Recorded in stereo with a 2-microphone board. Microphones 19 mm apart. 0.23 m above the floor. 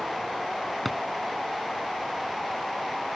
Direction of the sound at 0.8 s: 5° left (ahead or behind).